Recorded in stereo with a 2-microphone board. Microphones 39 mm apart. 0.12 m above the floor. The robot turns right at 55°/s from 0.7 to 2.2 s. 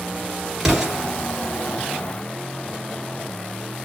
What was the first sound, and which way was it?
An explosion, 5° right (ahead or behind).